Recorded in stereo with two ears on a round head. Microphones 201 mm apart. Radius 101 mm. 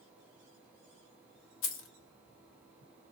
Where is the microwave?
I don't hear a microwave.